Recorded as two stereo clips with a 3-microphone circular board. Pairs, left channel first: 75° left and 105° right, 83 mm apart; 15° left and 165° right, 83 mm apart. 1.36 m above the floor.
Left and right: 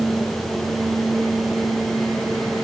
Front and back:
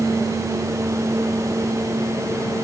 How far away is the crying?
No crying in this recording.